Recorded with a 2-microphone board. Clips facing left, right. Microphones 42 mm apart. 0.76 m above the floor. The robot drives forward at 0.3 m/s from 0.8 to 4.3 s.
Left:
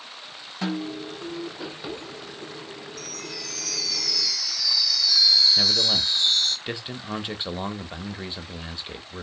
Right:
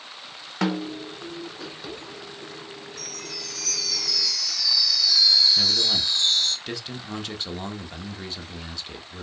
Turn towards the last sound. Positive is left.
turn(degrees=20)  # may be behind; listen again after turning